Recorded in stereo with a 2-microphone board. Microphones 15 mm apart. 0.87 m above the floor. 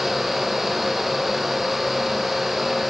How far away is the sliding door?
No sliding door in this recording.